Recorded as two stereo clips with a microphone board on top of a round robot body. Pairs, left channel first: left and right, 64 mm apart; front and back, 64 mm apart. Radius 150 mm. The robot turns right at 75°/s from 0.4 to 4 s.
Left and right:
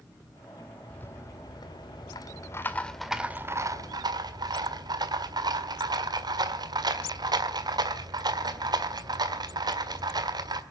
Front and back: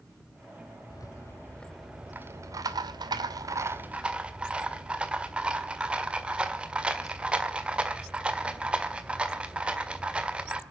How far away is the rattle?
About 1.6 m.